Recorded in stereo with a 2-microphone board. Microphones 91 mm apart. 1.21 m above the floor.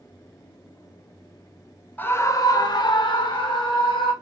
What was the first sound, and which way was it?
A scream, 20° left (ahead or behind).